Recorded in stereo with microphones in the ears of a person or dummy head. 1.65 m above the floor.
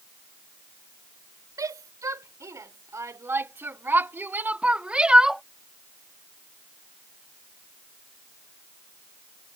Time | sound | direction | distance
1.6 | a shout | 20° right (ahead or behind) | ?